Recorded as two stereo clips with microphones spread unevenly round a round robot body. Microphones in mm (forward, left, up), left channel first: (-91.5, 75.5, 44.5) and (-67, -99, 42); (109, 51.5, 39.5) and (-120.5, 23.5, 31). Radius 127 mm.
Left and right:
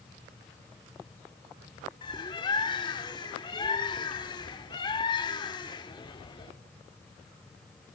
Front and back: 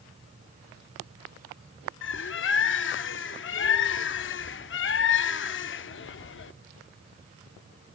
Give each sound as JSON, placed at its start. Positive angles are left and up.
{"t": 2.0, "sound": "a bird", "azimuth_deg": 35, "distance_m": 0.7}